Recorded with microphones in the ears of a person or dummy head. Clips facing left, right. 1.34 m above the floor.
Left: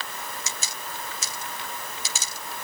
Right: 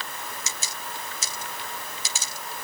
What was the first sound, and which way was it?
Only background noise.